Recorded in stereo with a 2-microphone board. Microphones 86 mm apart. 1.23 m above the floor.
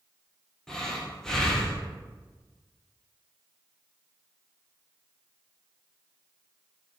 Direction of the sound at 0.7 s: 5° left (ahead or behind).